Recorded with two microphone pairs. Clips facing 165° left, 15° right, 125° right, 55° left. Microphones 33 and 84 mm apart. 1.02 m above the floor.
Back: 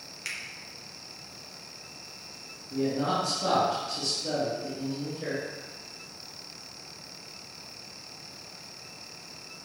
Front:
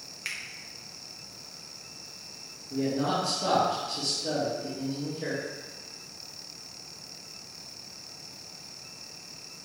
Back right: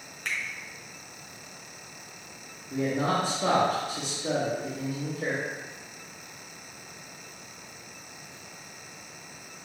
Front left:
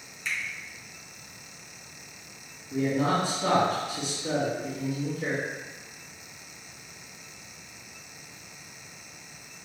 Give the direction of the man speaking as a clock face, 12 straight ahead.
3 o'clock.